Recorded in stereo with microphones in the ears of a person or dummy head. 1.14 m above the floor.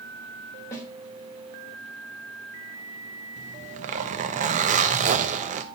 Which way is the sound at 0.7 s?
15° left (ahead or behind).